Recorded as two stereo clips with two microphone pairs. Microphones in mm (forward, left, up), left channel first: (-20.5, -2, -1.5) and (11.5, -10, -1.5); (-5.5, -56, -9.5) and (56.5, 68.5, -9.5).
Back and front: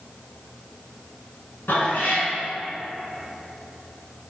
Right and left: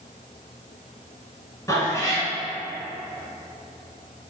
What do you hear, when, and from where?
1.7 s a cat meowing: 175° left, 1.3 m